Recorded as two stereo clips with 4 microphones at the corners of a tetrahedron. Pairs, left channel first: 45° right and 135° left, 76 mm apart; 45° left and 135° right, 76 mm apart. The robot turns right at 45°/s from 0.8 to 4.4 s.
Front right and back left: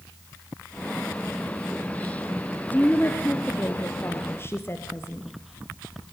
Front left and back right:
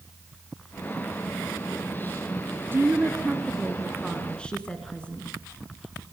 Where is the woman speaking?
95° right, 1.8 m; by 5.3 s 20° right, 1.8 m.